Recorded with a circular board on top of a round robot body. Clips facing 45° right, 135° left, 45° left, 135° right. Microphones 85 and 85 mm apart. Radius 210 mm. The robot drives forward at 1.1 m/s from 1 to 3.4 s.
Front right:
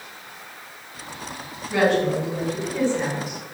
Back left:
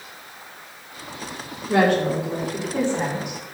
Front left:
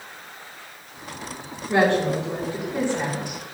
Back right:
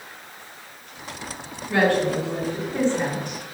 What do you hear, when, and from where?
1.7 s a woman speaking: 110° left, 3.5 m; by 3.4 s 130° left, 4.5 m